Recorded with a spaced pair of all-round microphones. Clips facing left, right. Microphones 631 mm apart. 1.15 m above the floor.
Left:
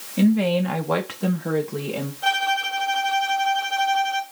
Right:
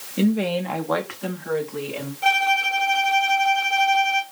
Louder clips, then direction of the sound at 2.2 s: Right 2 dB; 50° right (ahead or behind).